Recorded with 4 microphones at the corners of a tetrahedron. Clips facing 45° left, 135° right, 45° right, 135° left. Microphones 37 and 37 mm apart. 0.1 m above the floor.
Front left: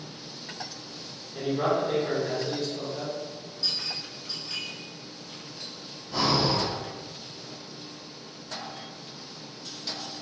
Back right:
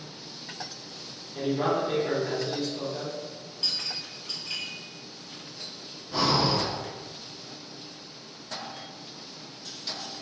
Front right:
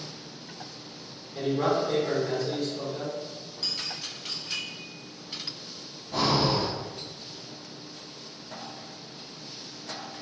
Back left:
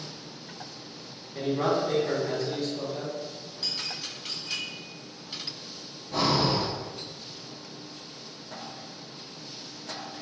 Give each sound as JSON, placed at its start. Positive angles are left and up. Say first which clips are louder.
{"t": 1.4, "sound": "a man speaking", "louder": "even, even", "azimuth_deg": 145, "distance_m": 1.5}
{"t": 3.6, "sound": "a clink", "louder": "even, even", "azimuth_deg": -140, "distance_m": 1.7}
{"t": 6.1, "sound": "breathing", "louder": "even, even", "azimuth_deg": -170, "distance_m": 1.4}